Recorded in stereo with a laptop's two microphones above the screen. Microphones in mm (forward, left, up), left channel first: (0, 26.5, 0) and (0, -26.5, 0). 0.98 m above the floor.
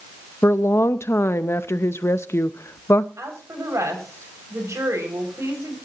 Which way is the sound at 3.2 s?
65° right (ahead or behind).